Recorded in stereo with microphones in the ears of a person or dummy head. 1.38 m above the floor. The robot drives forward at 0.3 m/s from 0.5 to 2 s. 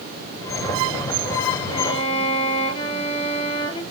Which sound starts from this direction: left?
A violin, at 1.7 s.